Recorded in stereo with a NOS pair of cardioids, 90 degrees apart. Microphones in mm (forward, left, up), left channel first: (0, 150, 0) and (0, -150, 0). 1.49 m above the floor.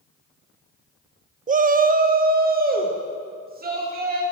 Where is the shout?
25° right, 0.6 m; by 4.2 s 30° right, 3.5 m.